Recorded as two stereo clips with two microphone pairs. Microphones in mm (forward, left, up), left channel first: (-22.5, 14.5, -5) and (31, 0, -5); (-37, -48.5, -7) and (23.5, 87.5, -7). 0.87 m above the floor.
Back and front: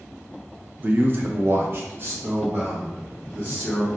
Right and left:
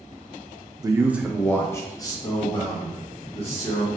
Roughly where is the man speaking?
Ahead.